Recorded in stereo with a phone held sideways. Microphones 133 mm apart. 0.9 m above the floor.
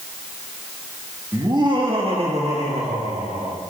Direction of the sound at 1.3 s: 25° right (ahead or behind).